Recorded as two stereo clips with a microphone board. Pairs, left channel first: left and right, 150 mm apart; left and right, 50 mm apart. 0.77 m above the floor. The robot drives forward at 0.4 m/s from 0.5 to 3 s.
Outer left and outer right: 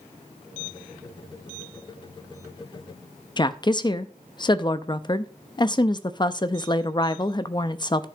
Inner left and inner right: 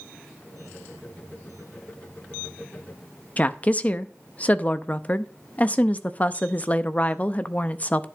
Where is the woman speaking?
30° left (ahead or behind), 0.5 m.